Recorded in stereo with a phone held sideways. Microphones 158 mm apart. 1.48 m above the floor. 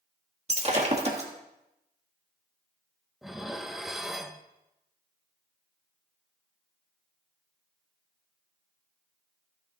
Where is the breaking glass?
45° right (ahead or behind), 1.6 m.